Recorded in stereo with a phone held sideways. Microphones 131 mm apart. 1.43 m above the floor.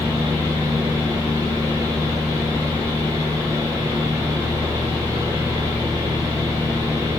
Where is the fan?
25° right (ahead or behind), 1.1 m.